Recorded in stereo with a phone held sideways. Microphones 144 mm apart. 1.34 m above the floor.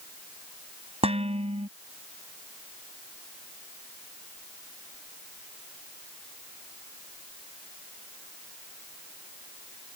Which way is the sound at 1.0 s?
45° right (ahead or behind).